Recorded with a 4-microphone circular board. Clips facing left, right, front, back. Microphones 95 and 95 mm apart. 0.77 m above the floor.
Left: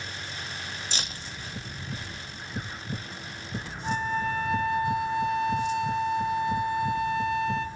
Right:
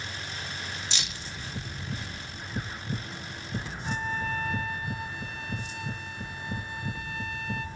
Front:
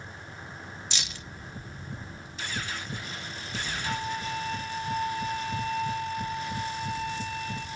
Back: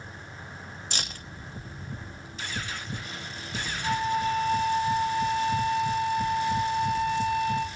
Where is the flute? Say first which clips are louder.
Left 5 dB, back 8 dB; 160° left, 1.9 m.